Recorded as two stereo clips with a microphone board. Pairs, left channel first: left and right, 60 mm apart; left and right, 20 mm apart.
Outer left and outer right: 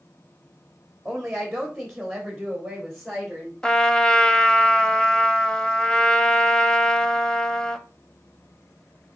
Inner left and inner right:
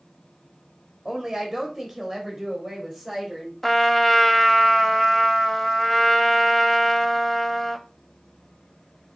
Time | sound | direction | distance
1.1 | a woman speaking | 5° right (ahead or behind) | 1.5 m
3.6 | a trumpet | 15° left (ahead or behind) | 0.7 m